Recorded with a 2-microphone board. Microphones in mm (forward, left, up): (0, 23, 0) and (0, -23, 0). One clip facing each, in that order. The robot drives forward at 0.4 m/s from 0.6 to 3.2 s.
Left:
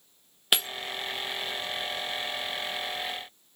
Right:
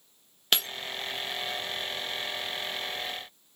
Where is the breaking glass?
15° left (ahead or behind), 0.6 m; by 0.7 s 10° left (ahead or behind), 0.6 m.